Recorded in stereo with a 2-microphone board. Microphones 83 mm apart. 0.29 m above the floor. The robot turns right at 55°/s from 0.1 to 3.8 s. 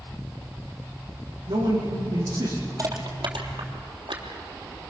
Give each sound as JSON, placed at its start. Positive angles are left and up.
{"t": 1.5, "sound": "a man speaking", "azimuth_deg": -100, "distance_m": 9.5}
{"t": 2.8, "sound": "crushing", "side_deg": -40, "distance_m": 3.5}